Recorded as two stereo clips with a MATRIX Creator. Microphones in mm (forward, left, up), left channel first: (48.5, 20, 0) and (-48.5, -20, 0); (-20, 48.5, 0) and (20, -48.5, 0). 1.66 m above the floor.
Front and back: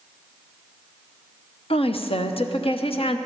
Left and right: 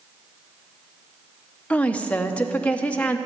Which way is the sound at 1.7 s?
35° left.